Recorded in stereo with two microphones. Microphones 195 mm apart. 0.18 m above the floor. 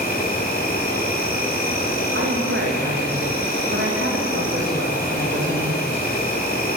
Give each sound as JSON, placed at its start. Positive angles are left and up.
{"t": 0.0, "sound": "an insect", "side_deg": 50, "distance_m": 6.5}
{"t": 2.1, "sound": "a woman speaking", "side_deg": -80, "distance_m": 8.0}